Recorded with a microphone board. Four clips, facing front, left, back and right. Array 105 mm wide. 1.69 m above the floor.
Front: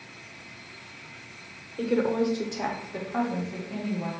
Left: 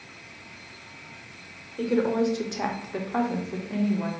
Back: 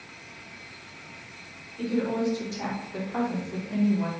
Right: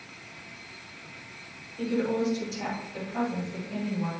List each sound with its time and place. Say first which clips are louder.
1.8 s a woman speaking: left 4 dB, front 2 dB; 45° left, 0.9 m; by 4.1 s 115° left, 1.1 m